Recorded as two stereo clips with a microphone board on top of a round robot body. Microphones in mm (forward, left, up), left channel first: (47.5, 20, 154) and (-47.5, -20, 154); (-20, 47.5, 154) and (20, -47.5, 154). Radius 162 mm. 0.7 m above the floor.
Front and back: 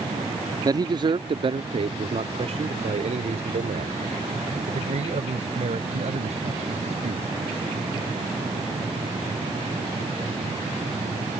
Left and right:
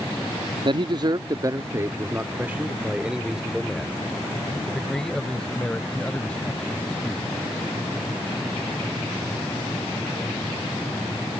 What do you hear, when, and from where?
0.7 s a man speaking: 105° right; by 7.4 s 170° right